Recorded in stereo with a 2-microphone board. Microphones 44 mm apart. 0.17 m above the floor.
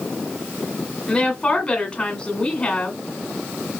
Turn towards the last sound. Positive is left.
turn(degrees=20)  # may be behind; listen again after turning